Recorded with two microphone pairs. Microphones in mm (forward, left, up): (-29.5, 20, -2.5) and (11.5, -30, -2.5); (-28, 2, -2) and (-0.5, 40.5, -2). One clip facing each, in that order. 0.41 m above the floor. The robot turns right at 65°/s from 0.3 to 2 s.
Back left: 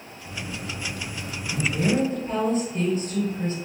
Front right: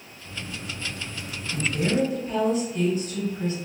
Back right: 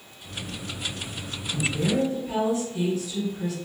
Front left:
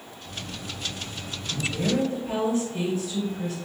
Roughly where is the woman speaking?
Ahead left.